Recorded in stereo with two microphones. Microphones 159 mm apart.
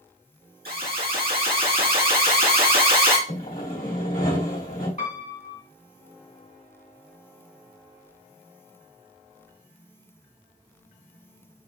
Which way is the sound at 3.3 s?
65° left (ahead or behind).